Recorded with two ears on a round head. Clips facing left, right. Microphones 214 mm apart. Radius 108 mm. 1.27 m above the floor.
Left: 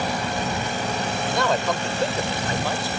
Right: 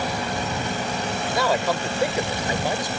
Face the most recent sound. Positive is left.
turn(degrees=-15)  # may be behind; listen again after turning